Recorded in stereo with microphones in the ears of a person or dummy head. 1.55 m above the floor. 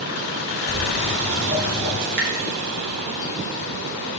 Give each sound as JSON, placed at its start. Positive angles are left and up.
{"t": 0.7, "sound": "footsteps", "side_deg": -50, "distance_m": 3.5}
{"t": 2.0, "sound": "dripping", "side_deg": -65, "distance_m": 2.5}